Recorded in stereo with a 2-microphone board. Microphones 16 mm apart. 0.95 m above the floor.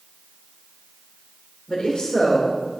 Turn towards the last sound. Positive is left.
turn(degrees=75)  # may be behind; listen again after turning